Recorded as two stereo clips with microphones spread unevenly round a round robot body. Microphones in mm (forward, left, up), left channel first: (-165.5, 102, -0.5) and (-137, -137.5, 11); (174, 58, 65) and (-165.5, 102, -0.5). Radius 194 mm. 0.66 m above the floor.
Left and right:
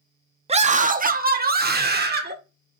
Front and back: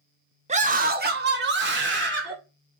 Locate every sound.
0.5 s a scream: 140° right, 0.8 m; by 2.4 s 130° right, 2 m